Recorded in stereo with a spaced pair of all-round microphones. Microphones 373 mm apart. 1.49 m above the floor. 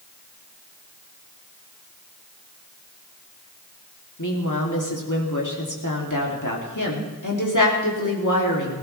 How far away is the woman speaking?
About 3 m.